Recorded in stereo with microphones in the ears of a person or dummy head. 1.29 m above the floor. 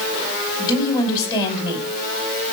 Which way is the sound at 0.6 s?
20° left (ahead or behind).